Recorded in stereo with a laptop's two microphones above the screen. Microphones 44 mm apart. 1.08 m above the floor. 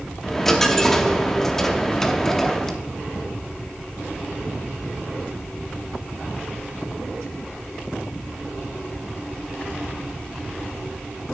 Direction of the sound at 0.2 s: 5° left (ahead or behind).